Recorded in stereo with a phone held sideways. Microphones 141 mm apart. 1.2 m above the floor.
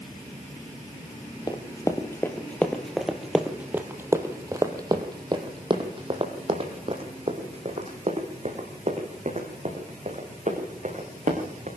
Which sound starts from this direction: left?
Running footsteps, at 1.5 s.